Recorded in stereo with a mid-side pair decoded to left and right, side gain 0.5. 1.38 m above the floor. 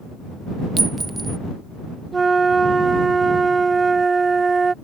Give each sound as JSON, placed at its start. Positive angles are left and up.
{"t": 0.8, "sound": "a clink", "azimuth_deg": -30}
{"t": 2.1, "sound": "a flute", "azimuth_deg": -30}